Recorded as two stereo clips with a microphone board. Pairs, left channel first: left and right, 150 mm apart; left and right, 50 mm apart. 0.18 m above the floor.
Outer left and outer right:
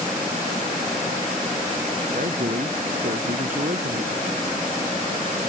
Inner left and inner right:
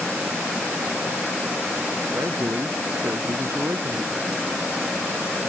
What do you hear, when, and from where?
2.1 s a man speaking: 65° right (ahead or behind)